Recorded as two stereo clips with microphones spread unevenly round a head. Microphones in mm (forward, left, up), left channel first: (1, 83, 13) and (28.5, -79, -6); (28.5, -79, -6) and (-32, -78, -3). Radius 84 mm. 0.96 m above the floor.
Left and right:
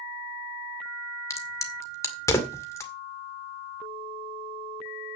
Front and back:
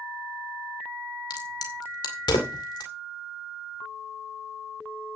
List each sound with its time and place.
1.3 s a crack: 25° left, 2 m